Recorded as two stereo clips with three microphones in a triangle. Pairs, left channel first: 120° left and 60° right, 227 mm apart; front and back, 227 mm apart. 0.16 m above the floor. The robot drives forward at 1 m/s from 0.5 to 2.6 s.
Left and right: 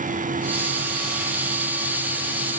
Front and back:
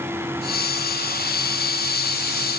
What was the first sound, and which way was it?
Only background noise.